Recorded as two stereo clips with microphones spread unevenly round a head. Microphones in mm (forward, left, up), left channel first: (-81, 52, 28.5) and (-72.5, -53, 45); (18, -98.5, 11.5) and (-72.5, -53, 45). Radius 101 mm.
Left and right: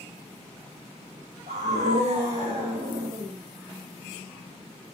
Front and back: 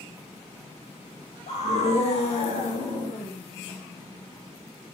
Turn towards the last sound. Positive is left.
turn(degrees=-30)